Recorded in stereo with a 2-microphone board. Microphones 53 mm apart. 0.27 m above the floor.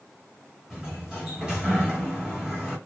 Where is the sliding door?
10° right (ahead or behind), 1.4 m.